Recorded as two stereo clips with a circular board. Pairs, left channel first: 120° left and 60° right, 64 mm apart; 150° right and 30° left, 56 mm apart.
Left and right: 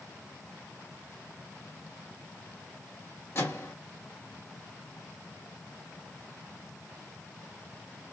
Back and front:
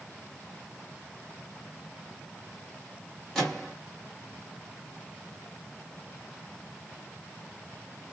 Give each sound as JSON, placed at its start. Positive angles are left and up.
{"t": 3.4, "sound": "a microwave", "azimuth_deg": 125, "distance_m": 1.3}